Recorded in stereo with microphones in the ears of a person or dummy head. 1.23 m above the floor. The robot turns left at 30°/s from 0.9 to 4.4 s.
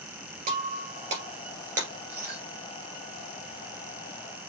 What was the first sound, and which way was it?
Breaking glass, 40° right (ahead or behind).